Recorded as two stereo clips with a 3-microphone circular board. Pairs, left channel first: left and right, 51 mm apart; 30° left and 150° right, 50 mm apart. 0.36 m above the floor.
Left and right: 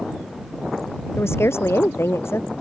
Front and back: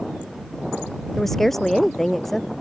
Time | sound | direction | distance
1.2 | a woman speaking | 115° left | ?